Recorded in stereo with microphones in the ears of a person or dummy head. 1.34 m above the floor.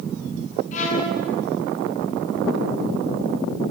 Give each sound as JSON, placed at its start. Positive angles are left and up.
{"t": 0.7, "sound": "a violin", "side_deg": 45, "distance_m": 5.5}